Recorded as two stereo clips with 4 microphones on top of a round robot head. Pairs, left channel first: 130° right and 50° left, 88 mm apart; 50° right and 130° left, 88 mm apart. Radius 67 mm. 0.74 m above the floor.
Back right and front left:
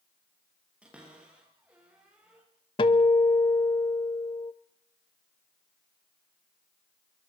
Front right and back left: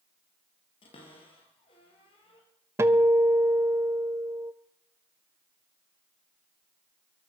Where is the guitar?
170° right, 0.8 m.